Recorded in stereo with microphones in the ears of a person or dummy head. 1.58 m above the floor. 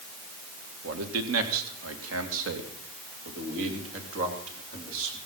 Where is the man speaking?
80° right, 1.8 m.